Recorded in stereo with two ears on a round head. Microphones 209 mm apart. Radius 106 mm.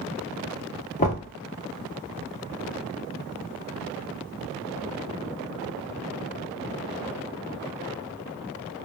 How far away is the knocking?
About 0.9 m.